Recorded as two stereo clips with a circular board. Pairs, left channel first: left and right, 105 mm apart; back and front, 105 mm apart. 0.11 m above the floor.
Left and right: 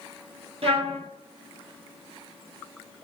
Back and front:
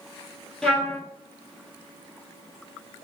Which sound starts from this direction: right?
A trumpet, at 0.6 s.